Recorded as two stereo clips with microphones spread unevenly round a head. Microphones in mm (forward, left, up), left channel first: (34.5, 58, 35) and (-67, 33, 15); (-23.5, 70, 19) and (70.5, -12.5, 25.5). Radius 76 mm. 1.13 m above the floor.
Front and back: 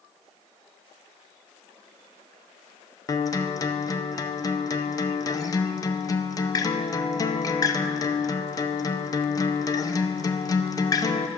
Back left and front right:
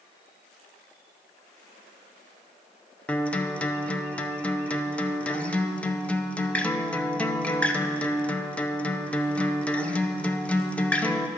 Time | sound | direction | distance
3.1 | a guitar | 65° left | 0.8 m